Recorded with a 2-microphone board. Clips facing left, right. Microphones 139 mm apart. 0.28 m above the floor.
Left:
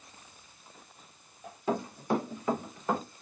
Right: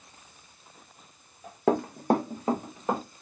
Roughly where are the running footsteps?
Right.